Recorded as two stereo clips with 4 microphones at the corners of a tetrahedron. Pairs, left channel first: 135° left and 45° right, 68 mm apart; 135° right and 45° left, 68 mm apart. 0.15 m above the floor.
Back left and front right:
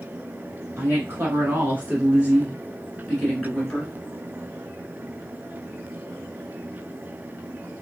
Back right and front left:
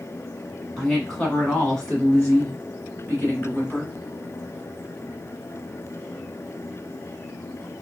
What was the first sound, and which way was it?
A woman speaking, 50° right.